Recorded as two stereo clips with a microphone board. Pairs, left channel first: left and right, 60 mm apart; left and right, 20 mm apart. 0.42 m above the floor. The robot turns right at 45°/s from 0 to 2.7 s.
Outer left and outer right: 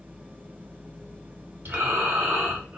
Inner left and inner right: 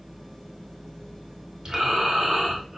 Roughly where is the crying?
I don't hear crying.